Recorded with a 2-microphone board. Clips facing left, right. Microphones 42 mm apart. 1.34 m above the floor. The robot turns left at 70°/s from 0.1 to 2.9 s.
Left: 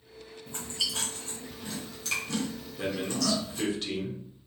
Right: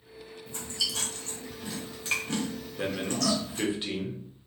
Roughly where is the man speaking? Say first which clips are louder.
Right 1 dB; right.